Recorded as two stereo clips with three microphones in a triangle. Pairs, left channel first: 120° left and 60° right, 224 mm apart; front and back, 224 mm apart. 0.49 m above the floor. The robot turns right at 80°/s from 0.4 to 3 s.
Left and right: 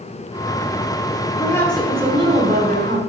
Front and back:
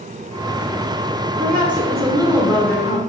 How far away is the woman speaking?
About 1.6 m.